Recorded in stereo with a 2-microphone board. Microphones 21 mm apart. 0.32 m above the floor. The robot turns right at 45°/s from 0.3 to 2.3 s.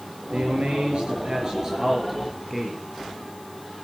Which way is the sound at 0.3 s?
90° right.